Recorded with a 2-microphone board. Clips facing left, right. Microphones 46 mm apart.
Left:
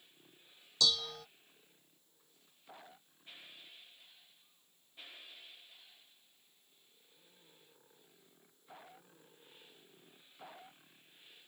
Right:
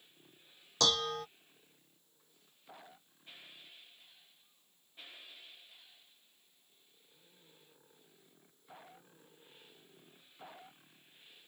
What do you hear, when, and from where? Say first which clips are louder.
0.8 s dishes clattering: right 3 dB; 50° right (ahead or behind)